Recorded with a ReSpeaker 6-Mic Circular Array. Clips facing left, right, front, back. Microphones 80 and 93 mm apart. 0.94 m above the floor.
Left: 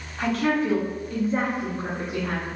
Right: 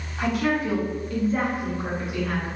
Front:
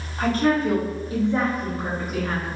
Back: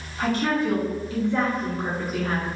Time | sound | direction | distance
0.2 | a woman speaking | 25° right | 1.2 m